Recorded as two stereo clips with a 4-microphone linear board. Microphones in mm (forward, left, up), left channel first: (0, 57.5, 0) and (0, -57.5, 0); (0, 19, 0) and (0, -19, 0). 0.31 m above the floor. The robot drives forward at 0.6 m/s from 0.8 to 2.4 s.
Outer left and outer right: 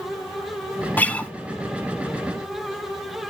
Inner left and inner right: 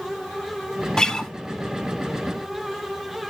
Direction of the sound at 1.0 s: 15° left (ahead or behind).